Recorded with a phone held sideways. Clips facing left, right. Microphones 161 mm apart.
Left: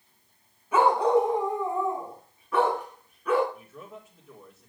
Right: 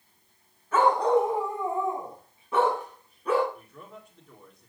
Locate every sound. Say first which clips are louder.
0.7 s a dog barking: left 1 dB; 15° left (ahead or behind), 2.5 m; by 3.4 s 30° right (ahead or behind), 5.5 m
3.5 s a man speaking: left 2 dB; 5° left (ahead or behind), 3 m